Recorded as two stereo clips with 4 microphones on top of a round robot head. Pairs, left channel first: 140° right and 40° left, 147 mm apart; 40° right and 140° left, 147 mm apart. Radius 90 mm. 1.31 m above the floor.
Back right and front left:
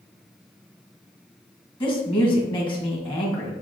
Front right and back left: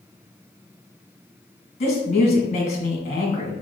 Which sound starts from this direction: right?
A woman speaking, at 1.8 s.